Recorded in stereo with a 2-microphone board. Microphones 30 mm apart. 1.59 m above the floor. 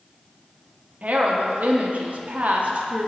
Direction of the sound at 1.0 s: 55° right (ahead or behind).